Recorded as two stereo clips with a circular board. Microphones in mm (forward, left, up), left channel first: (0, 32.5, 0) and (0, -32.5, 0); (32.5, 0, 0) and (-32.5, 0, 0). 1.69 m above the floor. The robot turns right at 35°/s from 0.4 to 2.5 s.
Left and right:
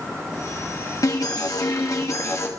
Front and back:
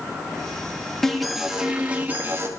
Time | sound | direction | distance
1.0 | an alarm | 80° left | 1.7 m